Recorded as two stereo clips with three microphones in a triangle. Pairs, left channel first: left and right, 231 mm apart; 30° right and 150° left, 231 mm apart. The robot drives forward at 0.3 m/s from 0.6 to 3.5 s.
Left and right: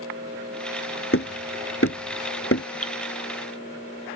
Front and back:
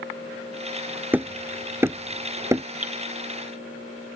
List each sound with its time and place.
1.1 s hammering: 70° left; by 2.6 s 75° left
2.8 s dripping: 95° left